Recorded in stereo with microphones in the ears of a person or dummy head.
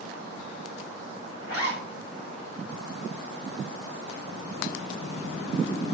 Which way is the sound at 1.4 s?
85° left.